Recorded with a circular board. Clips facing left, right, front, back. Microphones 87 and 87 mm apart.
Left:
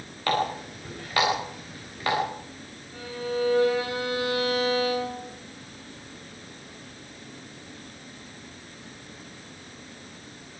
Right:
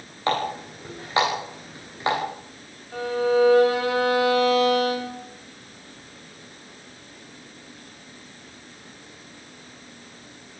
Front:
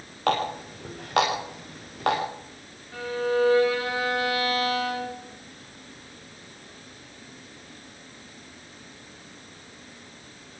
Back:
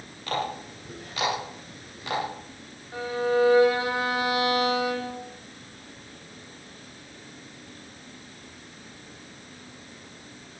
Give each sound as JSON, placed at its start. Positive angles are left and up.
{"t": 0.3, "sound": "a running tap", "azimuth_deg": -25, "distance_m": 9.0}
{"t": 2.9, "sound": "a violin", "azimuth_deg": -110, "distance_m": 4.5}